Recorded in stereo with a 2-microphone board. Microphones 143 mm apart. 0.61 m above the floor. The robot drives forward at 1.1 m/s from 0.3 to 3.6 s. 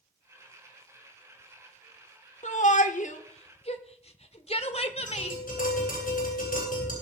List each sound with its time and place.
2.4 s a shout: 55° left (ahead or behind), 1.3 m; by 5.4 s 45° left (ahead or behind), 1.5 m
5.1 s tapping: 80° left, 9.5 m